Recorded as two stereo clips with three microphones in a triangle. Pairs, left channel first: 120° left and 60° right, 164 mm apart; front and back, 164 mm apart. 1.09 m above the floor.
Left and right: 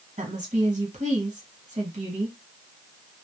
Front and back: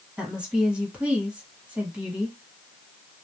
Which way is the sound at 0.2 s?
100° right.